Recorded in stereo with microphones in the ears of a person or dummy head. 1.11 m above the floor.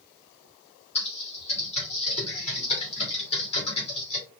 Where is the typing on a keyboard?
35° left (ahead or behind), 1.8 m.